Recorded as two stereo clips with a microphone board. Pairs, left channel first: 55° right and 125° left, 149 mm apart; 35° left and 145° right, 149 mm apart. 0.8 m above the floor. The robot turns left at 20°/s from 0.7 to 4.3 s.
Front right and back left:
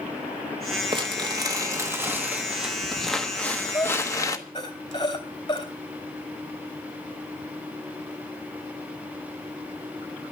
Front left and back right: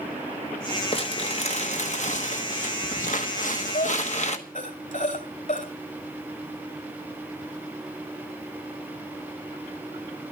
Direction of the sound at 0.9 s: 75° left.